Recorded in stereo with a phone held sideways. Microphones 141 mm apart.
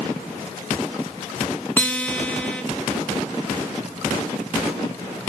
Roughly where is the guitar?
Centre.